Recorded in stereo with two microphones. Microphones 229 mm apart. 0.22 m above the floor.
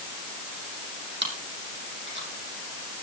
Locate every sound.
1.2 s chewing: 50° right (ahead or behind), 7 m